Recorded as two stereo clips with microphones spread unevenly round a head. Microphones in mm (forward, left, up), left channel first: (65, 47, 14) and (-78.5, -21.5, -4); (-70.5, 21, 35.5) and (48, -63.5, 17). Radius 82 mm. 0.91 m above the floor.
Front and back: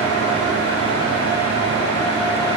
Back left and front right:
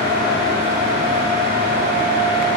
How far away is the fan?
About 3.5 m.